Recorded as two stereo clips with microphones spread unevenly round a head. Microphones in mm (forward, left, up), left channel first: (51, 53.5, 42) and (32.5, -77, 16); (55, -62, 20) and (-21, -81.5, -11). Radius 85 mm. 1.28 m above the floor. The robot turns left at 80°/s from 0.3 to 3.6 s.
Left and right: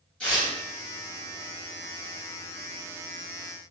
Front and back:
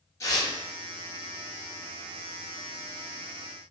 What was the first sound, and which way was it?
Tearing paper, 10° left.